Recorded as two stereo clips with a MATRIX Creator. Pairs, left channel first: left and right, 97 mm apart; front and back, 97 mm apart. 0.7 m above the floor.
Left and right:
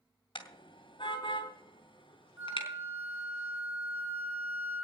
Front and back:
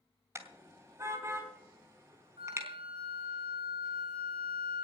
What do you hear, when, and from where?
0.3 s a car horn: 120° left, 2 m
2.4 s a flute: 160° right, 4.5 m